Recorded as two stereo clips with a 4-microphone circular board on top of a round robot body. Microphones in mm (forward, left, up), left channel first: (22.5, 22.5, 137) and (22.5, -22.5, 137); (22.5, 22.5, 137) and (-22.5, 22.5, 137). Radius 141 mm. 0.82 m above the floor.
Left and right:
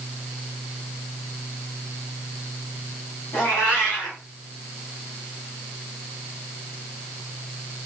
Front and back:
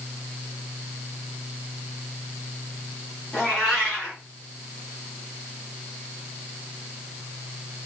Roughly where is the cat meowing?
Left.